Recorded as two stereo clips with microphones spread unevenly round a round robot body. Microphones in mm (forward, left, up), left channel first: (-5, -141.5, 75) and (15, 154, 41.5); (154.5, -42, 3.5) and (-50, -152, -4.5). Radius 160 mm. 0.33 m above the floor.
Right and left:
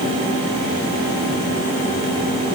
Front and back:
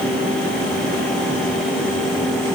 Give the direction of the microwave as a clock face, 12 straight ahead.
No microwave in this recording.